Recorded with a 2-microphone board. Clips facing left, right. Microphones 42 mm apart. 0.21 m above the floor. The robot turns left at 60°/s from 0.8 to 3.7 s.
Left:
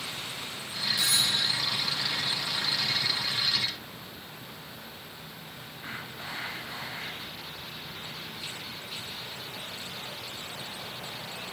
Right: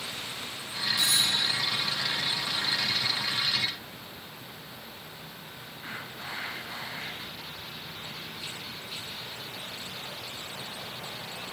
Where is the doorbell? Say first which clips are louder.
Right 1 dB; 20° right (ahead or behind), 2 m; by 1.4 s 25° right (ahead or behind), 2 m.